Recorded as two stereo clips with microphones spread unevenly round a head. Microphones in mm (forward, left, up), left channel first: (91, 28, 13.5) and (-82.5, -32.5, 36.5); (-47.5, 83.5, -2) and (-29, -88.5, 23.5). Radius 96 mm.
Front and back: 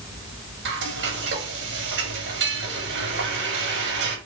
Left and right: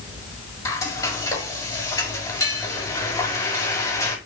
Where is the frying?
170° left, 6 m.